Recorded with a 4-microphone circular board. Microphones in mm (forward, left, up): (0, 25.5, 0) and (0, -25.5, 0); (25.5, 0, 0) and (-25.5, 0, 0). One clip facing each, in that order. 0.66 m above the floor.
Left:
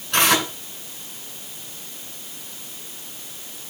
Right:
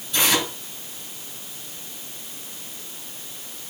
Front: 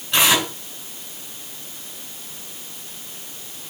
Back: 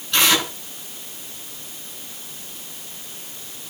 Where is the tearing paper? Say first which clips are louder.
Left 3 dB, front 1 dB; 75° left, 9 m.